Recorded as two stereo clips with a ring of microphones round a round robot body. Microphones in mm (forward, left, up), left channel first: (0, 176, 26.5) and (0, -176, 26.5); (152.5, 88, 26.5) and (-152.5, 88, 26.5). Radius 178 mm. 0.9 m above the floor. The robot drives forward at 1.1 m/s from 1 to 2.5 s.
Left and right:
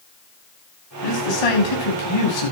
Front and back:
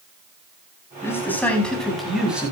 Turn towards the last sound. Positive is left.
turn(degrees=95)